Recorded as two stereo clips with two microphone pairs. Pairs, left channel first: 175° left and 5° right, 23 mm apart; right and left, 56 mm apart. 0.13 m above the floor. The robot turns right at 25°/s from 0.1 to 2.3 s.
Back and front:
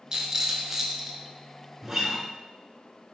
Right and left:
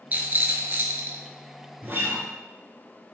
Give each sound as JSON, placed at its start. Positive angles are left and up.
{"t": 0.1, "sound": "a rattle", "azimuth_deg": 40, "distance_m": 0.6}
{"t": 1.8, "sound": "a guitar", "azimuth_deg": 60, "distance_m": 0.7}